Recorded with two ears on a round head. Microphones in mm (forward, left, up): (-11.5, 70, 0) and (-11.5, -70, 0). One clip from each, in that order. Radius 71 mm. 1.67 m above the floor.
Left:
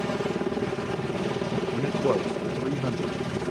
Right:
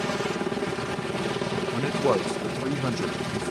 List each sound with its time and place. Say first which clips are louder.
0.0 s a helicopter: right 1 dB; 35° right (ahead or behind)
1.7 s a man speaking: right 2 dB; 85° right